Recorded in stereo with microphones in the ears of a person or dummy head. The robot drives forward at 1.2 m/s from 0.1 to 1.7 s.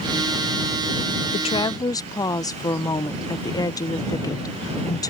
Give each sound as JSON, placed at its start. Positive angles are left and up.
{"t": 1.3, "sound": "a woman speaking", "side_deg": 40}